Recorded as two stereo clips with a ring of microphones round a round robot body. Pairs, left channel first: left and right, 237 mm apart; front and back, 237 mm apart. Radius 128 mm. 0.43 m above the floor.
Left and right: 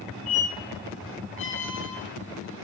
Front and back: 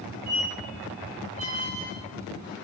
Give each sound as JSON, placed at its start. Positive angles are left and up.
{"t": 0.3, "sound": "a squeak", "azimuth_deg": 150, "distance_m": 0.7}